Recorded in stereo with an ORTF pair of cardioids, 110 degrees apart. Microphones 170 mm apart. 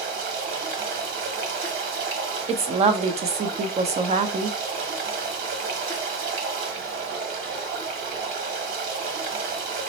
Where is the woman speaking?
40° right, 0.6 m.